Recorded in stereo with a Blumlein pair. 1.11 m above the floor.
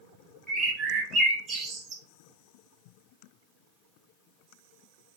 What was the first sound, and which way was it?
A bird, 20° right.